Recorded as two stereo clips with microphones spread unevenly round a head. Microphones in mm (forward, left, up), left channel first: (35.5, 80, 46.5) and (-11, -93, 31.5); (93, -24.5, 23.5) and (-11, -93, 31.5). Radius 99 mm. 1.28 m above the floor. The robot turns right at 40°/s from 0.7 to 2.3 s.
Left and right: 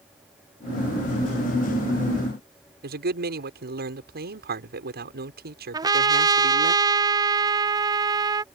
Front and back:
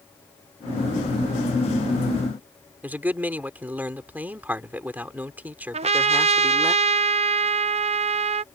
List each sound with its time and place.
2.8 s a man speaking: 70° right
5.7 s a trumpet: 165° right